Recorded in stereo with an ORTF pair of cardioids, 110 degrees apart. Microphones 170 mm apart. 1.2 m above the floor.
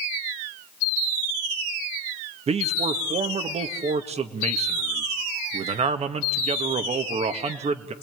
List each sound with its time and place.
2.5 s a man speaking: 40° right, 1.8 m